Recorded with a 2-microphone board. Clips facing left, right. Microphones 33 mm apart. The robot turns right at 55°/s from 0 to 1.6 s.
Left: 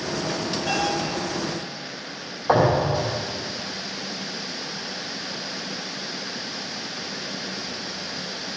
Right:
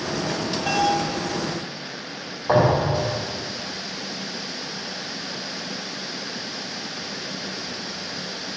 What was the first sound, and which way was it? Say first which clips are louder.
A bell: right 4 dB; 75° right (ahead or behind).